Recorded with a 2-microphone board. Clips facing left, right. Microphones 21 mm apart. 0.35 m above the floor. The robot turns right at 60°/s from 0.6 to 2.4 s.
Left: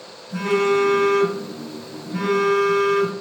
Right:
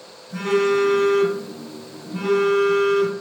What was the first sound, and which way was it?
A phone buzzing, 5° right.